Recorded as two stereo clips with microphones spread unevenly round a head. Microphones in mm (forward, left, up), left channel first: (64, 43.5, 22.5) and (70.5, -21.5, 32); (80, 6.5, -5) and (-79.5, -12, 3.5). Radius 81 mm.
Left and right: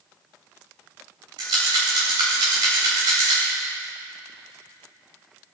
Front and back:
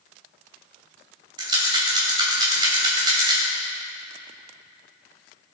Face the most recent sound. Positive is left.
turn(degrees=-110)